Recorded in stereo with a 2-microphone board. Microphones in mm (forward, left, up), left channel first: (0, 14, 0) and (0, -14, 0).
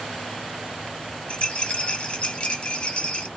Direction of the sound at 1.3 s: 40° left (ahead or behind).